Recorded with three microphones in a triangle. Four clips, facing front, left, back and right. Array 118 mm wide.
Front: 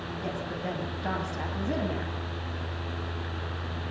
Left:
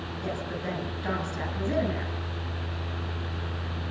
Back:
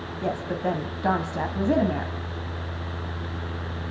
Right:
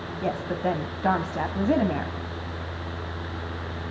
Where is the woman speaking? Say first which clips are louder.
Right 7 dB, back 8 dB; 125° right, 3 m.